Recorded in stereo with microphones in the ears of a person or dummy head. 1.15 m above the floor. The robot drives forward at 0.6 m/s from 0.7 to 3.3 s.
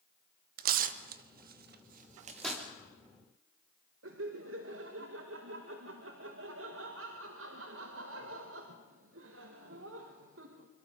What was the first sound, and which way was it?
Tearing paper, 45° right (ahead or behind).